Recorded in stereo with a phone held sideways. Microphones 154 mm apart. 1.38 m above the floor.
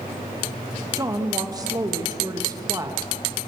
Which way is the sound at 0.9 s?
25° right (ahead or behind).